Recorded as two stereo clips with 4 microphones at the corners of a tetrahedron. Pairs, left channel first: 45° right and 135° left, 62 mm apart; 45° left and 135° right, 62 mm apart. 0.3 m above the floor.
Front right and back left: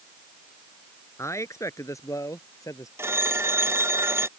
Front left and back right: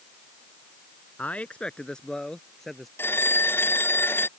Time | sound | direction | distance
1.2 | a man speaking | 15° right | ?
3.0 | a phone ringing | 95° left | ?